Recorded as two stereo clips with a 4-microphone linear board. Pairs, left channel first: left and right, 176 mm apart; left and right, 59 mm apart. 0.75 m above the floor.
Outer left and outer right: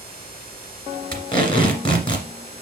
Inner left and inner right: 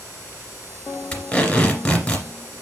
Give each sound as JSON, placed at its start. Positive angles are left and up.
{"t": 1.1, "sound": "tape being pulled", "side_deg": 25, "distance_m": 2.0}